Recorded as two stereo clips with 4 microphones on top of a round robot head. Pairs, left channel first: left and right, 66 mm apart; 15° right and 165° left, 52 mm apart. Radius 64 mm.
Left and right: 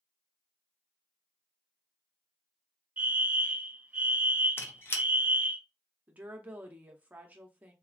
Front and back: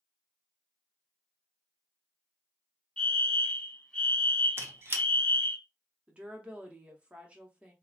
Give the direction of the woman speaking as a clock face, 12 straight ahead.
5 o'clock.